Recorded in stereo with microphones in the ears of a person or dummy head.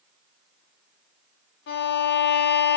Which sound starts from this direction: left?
A violin, at 1.7 s.